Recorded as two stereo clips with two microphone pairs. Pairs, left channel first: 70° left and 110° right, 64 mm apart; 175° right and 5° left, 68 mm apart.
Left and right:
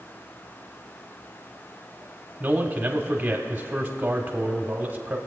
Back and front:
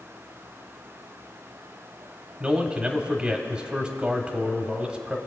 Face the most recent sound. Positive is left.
turn(degrees=-65)